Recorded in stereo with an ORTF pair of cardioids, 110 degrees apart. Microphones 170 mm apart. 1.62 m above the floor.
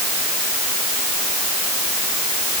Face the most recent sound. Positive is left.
No sound to turn to.